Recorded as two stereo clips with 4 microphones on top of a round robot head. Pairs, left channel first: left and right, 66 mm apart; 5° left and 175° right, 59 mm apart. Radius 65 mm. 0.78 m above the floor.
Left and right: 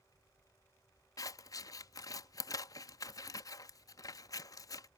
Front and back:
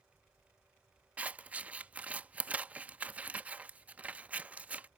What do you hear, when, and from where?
1.2 s scissors: 120° left